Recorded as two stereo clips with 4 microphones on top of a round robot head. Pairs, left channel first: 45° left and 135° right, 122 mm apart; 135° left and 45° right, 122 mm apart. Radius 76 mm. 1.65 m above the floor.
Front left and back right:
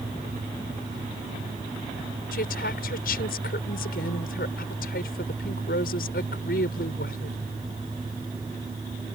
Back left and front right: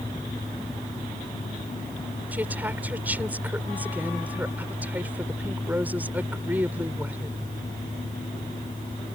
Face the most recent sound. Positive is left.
turn(degrees=30)